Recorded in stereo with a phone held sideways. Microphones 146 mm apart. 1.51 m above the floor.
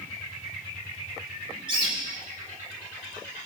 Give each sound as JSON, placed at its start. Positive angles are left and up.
{"t": 1.7, "sound": "a bird", "side_deg": -30, "distance_m": 3.0}